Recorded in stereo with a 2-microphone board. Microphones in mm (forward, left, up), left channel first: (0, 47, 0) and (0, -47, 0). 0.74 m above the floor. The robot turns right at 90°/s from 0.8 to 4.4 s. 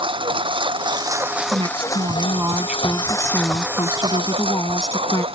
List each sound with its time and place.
0.0 s a lawn mower: 65° right; by 5.3 s 100° right
1.5 s a woman speaking: 120° right; by 5.2 s 140° left